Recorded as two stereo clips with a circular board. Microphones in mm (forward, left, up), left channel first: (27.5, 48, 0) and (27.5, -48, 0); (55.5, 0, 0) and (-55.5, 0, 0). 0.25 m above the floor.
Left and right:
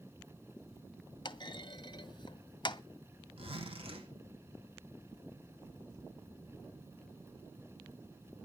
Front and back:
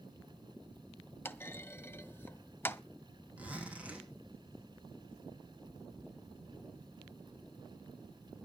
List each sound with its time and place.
1.2 s a clunk: 65° left, 0.6 m
3.4 s a zipper: 100° right, 5 m